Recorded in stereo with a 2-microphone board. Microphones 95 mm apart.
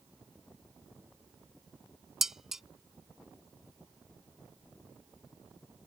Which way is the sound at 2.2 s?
5° right (ahead or behind).